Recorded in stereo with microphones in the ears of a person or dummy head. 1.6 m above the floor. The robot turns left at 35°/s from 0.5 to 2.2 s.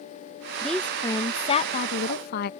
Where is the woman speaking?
175° right; by 2.5 s 130° left.